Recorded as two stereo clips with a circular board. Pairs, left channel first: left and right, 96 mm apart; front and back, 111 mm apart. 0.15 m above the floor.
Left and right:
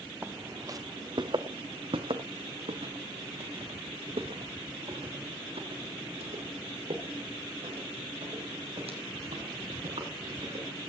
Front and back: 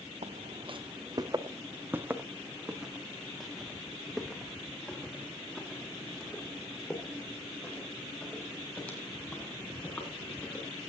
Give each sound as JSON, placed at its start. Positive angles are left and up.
{"t": 0.2, "sound": "footsteps", "azimuth_deg": -160, "distance_m": 1.1}